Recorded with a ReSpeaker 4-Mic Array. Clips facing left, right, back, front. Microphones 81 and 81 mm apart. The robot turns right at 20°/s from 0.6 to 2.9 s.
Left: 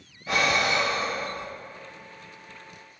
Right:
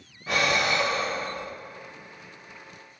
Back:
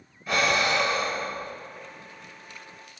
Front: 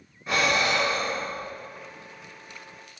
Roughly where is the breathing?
Ahead right.